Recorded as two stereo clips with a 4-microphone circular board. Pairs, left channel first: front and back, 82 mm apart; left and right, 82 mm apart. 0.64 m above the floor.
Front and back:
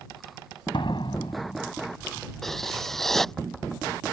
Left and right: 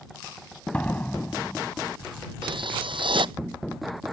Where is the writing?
85° right.